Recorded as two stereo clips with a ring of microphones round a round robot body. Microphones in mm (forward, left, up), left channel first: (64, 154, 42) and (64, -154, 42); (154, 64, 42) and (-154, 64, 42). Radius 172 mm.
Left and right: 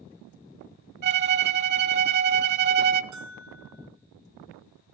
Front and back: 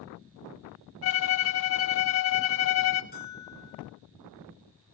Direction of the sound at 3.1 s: 65° right.